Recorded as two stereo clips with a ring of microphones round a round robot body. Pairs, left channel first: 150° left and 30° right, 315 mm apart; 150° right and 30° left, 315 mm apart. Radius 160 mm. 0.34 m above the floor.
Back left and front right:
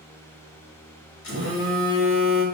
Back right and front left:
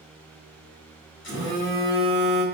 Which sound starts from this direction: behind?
A phone buzzing, at 1.2 s.